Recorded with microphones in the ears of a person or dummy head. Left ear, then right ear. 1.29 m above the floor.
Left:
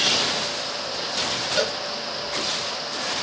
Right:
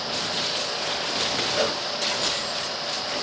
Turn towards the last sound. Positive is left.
turn(degrees=55)  # may be behind; listen again after turning